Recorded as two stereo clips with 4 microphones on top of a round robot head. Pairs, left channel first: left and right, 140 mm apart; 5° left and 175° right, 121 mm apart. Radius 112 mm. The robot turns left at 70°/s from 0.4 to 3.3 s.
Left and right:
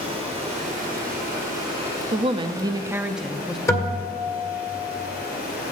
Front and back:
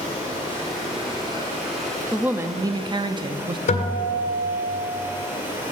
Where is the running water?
40° right, 6 m; by 5.7 s 115° left, 6 m.